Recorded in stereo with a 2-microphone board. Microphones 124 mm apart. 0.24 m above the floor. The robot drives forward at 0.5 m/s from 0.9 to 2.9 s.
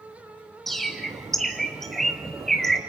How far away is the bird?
About 2.5 m.